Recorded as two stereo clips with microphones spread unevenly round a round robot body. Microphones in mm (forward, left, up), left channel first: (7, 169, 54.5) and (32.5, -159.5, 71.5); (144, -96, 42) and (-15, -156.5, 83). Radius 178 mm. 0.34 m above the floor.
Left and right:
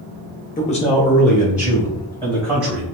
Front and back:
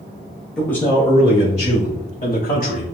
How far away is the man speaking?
About 0.9 m.